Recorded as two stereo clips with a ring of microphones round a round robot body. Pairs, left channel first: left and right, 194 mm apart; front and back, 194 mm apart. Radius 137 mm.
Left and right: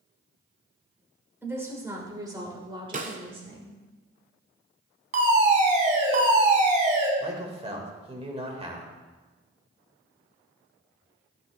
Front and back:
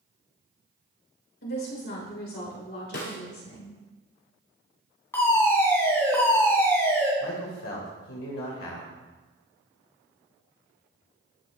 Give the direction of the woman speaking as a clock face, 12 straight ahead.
12 o'clock.